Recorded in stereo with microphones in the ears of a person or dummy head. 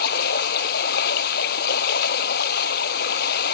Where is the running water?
65° left (ahead or behind).